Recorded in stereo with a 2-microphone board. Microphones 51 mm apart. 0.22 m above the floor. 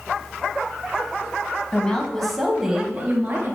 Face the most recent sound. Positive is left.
turn(degrees=-45)  # may be behind; listen again after turning